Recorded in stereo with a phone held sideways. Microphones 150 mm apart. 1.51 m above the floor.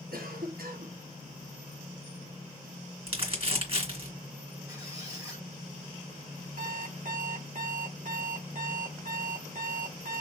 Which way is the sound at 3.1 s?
40° right (ahead or behind).